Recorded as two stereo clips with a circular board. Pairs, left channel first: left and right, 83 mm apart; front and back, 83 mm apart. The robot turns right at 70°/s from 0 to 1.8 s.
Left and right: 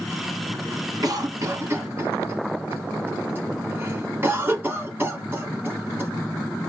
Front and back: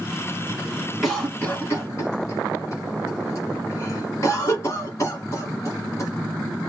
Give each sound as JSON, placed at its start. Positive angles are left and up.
{"t": 1.0, "sound": "a cough", "azimuth_deg": -90, "distance_m": 1.9}